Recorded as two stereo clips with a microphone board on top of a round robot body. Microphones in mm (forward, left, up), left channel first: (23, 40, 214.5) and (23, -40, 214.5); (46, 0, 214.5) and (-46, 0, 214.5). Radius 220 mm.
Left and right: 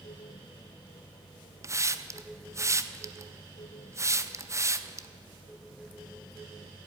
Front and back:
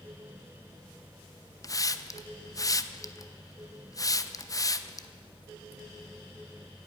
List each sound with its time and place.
1.6 s a hiss: 45° right, 0.8 m